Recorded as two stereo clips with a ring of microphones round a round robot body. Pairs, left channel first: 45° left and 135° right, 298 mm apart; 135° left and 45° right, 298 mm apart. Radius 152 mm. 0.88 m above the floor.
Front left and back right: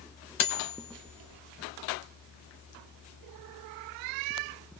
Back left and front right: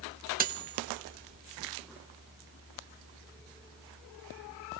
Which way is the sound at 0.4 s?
20° left.